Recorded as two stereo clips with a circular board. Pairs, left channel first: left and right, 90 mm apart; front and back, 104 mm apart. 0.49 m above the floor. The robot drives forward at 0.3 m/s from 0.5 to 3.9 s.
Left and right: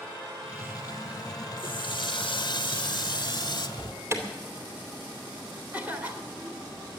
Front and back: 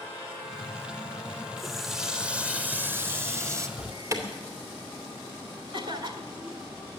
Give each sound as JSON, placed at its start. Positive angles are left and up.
{"t": 1.6, "sound": "a running tap", "azimuth_deg": 90, "distance_m": 1.0}
{"t": 3.8, "sound": "an alarm", "azimuth_deg": -135, "distance_m": 2.5}
{"t": 5.7, "sound": "a cough", "azimuth_deg": -160, "distance_m": 1.9}